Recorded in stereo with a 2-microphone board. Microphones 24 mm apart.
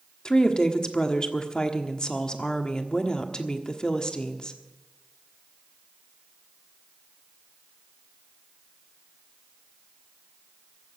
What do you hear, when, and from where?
0.2 s a woman speaking: 30° left (ahead or behind), 1.3 m